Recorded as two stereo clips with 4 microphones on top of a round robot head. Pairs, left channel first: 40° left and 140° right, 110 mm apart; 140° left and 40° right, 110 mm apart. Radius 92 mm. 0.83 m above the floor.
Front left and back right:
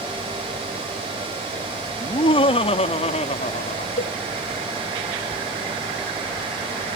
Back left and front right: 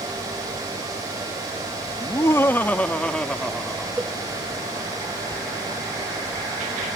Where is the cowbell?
40° left.